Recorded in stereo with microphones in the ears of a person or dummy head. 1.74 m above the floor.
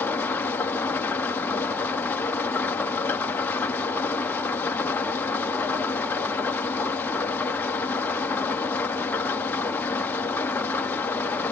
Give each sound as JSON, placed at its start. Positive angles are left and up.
{"t": 0.0, "sound": "an engine running", "side_deg": 10, "distance_m": 1.0}